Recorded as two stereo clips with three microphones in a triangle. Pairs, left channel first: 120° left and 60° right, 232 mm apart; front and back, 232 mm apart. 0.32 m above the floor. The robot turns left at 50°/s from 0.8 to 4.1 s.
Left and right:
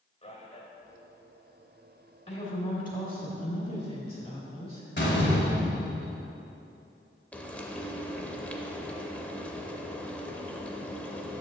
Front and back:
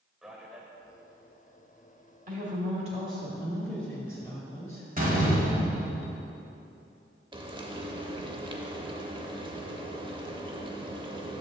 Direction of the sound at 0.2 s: 95° left.